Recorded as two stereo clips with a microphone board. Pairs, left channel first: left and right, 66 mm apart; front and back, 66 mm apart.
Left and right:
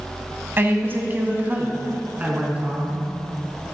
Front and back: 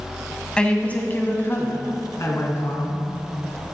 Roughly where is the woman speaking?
Ahead right.